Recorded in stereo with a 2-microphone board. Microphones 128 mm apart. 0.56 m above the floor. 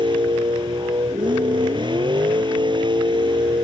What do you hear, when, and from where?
0.0 s a vehicle: 35° right (ahead or behind)